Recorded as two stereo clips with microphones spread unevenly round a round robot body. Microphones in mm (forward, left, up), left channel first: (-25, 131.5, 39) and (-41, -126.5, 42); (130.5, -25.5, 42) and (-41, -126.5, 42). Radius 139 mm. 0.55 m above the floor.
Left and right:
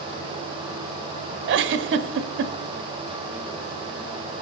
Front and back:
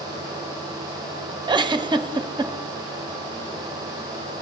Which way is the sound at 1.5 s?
90° right.